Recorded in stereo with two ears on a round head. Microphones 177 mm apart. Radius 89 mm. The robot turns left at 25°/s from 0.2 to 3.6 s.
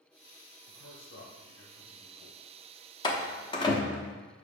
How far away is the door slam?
About 0.8 m.